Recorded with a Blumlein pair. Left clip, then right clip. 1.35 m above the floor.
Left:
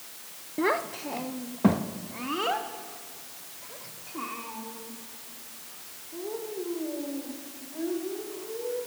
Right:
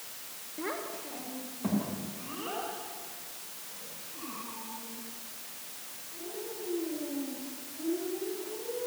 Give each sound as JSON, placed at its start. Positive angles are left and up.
{"t": 0.6, "sound": "a child speaking", "azimuth_deg": 60, "distance_m": 0.8}